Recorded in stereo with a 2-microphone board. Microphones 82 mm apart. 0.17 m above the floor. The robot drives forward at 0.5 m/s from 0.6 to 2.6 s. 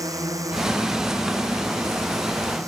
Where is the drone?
45° right (ahead or behind); by 2.7 s 40° right (ahead or behind).